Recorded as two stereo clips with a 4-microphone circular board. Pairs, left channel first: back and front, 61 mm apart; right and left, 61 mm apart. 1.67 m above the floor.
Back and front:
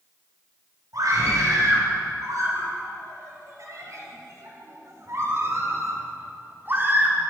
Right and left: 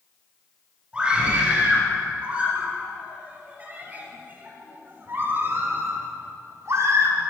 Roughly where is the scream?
Ahead.